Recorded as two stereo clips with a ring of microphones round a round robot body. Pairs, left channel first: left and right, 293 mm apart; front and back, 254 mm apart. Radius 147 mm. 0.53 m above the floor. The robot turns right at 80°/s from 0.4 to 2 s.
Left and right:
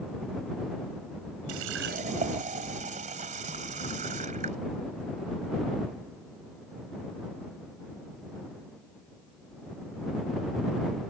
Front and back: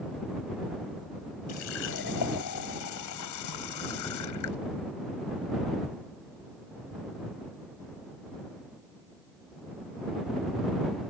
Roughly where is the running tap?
Ahead right.